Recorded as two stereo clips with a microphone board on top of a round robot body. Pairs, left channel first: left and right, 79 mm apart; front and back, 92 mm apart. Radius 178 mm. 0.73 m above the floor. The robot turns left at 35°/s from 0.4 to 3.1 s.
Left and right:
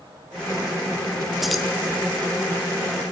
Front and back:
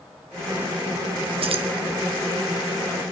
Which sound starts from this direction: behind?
Keys jangling, at 1.4 s.